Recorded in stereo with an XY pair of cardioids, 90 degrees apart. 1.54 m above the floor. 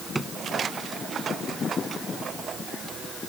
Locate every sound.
0.1 s a drawer: 25° right